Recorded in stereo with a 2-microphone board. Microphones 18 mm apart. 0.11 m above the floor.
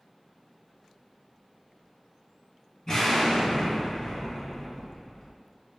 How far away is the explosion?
About 1.7 m.